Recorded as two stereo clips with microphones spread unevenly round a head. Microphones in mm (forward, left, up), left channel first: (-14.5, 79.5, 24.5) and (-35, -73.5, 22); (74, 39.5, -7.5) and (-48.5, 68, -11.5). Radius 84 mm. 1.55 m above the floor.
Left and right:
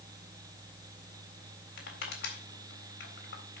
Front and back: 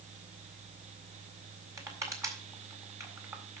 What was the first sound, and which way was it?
Crushing, 100° left.